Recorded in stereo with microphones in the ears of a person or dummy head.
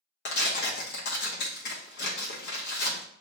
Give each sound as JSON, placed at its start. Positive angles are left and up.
{"t": 0.2, "sound": "tearing paper", "side_deg": 55, "distance_m": 1.1}